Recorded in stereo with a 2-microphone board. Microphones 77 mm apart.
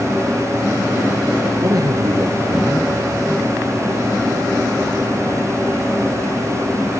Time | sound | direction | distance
1.6 | a man speaking | 55° right (ahead or behind) | 2.5 m